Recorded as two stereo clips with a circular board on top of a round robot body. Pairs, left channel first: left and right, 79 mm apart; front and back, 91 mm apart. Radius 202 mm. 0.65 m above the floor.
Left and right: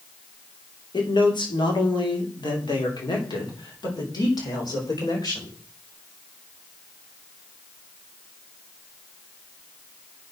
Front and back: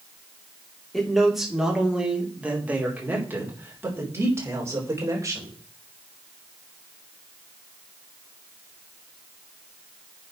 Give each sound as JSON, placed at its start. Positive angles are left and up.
{"t": 0.9, "sound": "a man speaking", "azimuth_deg": 90, "distance_m": 3.0}